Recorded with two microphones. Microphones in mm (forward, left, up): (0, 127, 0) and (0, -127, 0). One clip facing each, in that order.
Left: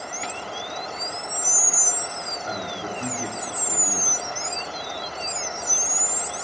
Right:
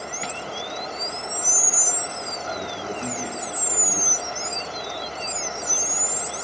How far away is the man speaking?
About 6 m.